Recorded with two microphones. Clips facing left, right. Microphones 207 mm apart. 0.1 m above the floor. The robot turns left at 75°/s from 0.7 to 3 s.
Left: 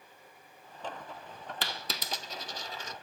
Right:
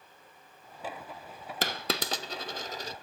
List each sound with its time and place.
1.6 s a dropped coin: 50° right (ahead or behind), 0.5 m; by 2.9 s 30° right (ahead or behind), 0.5 m